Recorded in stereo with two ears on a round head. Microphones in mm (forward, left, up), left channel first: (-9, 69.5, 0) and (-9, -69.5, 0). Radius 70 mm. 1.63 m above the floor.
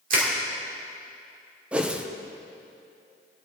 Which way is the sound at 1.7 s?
5° right (ahead or behind).